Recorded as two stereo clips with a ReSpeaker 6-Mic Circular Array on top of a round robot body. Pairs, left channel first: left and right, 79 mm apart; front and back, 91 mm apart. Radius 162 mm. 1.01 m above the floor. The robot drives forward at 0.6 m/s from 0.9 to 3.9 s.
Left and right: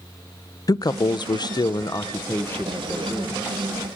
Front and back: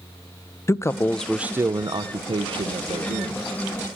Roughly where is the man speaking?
Ahead left.